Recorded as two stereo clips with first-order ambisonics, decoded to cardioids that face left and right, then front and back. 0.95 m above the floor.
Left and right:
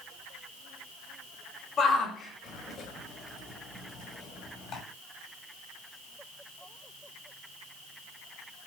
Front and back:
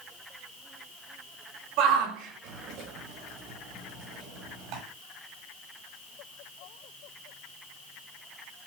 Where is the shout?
155° left, 5 m; by 4.8 s 145° left, 7.5 m.